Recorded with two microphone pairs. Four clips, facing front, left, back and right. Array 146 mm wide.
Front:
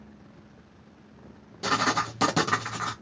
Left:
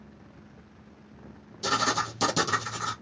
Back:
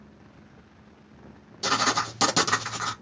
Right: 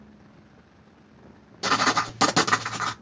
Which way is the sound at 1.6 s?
95° right.